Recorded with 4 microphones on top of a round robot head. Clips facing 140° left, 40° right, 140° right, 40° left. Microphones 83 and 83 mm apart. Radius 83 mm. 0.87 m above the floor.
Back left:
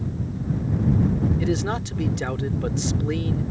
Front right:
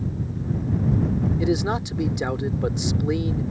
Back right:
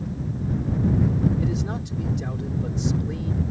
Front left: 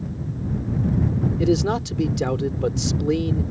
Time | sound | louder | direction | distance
1.4 | a man speaking | front right 2 dB, front left 8 dB | 35° left | ?